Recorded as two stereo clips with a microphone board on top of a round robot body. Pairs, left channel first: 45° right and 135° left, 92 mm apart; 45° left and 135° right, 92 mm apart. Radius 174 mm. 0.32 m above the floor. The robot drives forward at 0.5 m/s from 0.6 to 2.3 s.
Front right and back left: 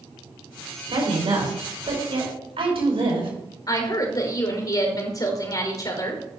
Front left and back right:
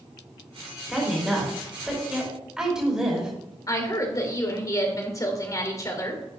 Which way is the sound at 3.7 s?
5° right.